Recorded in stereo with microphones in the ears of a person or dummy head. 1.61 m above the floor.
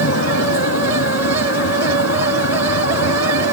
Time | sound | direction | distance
0.0 | a vehicle | 70° left (ahead or behind) | ?